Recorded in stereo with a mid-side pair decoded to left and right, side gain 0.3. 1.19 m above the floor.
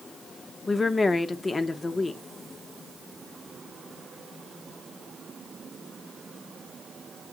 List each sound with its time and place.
0.7 s a woman speaking: 45° left, 1.0 m